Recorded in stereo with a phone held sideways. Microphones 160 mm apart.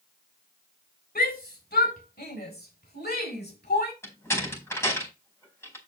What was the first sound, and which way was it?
A shout, 75° left (ahead or behind).